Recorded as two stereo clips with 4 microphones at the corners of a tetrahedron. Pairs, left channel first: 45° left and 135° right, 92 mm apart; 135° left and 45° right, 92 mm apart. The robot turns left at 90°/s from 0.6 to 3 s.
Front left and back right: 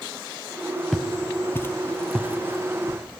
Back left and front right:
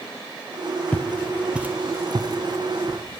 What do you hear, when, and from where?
0.9 s footsteps: 135° left, 1.6 m; by 3.0 s 135° right, 3 m